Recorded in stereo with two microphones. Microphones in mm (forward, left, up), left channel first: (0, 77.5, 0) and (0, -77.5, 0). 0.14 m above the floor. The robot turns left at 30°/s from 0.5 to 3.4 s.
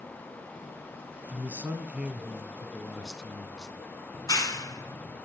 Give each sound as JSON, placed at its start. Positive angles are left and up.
{"t": 1.3, "sound": "a man speaking", "side_deg": -15, "distance_m": 1.0}
{"t": 4.1, "sound": "a clap", "side_deg": 25, "distance_m": 0.9}